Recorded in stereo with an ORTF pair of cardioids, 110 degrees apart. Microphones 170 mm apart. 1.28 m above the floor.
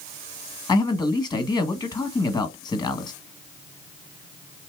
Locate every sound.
0.7 s a man speaking: 25° left, 1.2 m